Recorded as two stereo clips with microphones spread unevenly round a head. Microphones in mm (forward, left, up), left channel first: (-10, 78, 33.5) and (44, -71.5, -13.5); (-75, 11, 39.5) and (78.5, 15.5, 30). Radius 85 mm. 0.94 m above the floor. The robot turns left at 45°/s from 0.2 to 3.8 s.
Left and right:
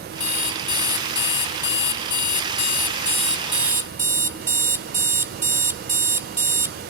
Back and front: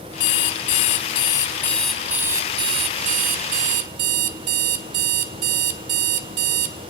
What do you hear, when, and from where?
0.2 s an alarm clock: 170° left, 2 m; by 6.8 s 5° left, 2 m